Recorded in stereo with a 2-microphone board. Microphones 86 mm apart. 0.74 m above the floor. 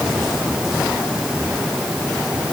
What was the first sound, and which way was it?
Only background noise.